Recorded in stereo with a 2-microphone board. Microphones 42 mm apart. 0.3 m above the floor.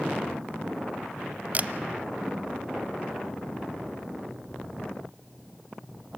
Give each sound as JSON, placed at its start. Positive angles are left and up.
{"t": 1.5, "sound": "a camera shutter", "side_deg": -40, "distance_m": 0.5}